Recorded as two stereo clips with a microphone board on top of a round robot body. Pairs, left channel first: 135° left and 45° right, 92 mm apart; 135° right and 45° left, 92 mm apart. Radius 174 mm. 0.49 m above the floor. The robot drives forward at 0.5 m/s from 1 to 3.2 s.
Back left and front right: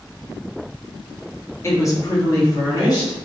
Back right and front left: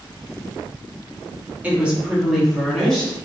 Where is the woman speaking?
105° left, 1.2 m; by 3.1 s 145° left, 1.5 m.